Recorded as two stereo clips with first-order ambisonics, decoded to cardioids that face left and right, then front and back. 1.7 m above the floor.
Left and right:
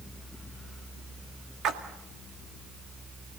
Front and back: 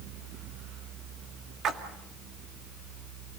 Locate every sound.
1.6 s a splash: 135° right, 1.9 m